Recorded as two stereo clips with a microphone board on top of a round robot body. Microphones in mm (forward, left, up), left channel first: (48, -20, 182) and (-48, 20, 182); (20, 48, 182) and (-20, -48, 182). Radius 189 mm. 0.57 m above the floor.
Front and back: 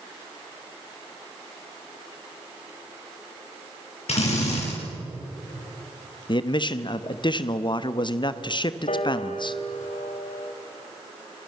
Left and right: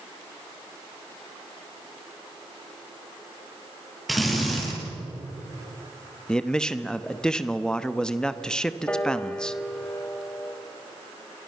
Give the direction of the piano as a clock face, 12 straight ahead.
12 o'clock.